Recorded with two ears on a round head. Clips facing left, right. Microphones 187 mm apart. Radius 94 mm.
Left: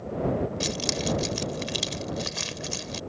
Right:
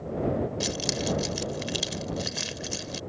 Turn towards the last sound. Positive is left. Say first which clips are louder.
# left 1 dB
turn(degrees=-5)  # may be behind; listen again after turning